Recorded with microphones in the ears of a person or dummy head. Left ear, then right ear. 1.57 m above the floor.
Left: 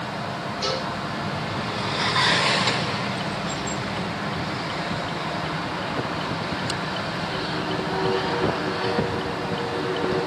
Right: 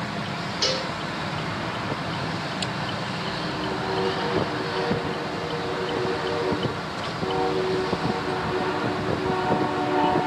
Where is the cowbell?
40° right (ahead or behind), 1.5 m.